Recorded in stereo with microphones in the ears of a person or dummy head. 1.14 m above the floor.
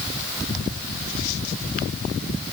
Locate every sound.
Only background noise.